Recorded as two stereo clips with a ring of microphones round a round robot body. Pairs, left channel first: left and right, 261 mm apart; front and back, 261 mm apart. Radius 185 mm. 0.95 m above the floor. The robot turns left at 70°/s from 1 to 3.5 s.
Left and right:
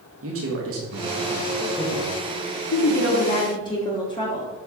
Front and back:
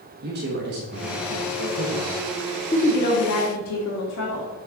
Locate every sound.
0.2 s a man speaking: 125° right, 1.3 m; by 2.1 s 155° left, 1.3 m
2.7 s a woman speaking: 70° left, 1.6 m; by 4.5 s 15° left, 1.6 m